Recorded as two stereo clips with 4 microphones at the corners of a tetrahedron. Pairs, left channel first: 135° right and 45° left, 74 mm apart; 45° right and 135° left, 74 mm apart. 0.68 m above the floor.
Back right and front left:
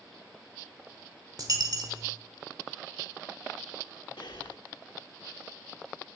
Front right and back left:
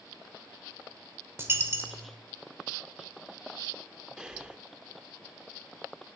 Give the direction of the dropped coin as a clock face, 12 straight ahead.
9 o'clock.